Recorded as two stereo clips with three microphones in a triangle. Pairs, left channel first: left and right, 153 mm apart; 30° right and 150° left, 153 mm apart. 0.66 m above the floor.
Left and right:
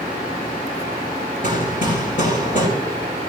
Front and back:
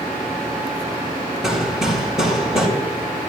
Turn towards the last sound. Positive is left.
turn(degrees=65)